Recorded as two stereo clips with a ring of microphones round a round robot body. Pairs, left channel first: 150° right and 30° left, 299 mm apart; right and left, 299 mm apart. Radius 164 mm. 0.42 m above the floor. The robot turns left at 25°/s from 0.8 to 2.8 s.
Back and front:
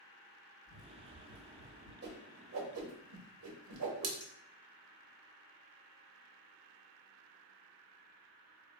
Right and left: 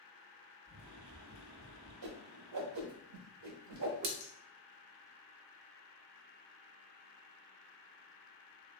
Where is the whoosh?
85° left, 0.7 m; by 4.1 s 65° left, 0.7 m.